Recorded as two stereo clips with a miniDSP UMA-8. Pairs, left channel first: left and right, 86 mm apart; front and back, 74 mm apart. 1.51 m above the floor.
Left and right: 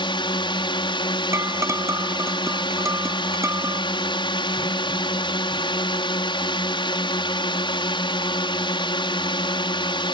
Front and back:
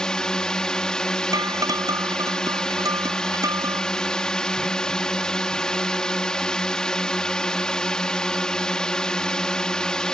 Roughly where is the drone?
Left.